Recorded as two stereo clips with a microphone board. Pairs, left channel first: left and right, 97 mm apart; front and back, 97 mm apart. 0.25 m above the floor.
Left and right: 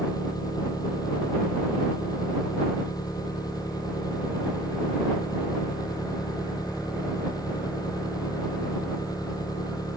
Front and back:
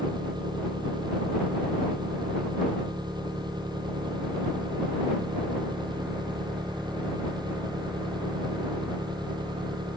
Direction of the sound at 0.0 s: 140° left.